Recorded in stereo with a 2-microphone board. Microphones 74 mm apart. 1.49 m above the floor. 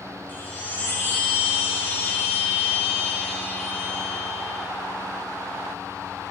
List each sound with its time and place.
0.3 s a chime: 25° left (ahead or behind), 4 m